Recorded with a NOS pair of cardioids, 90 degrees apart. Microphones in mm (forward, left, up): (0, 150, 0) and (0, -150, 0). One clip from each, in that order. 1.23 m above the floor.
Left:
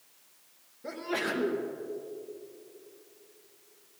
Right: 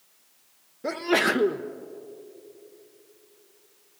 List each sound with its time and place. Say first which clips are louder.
0.8 s a sneeze: right 9 dB; 60° right, 0.9 m